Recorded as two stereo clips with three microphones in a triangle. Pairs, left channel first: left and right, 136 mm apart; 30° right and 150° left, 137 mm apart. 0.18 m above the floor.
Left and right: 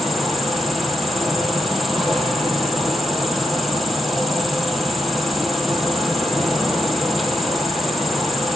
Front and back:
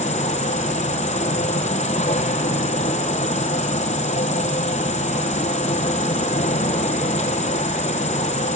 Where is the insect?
Straight ahead, 0.9 m.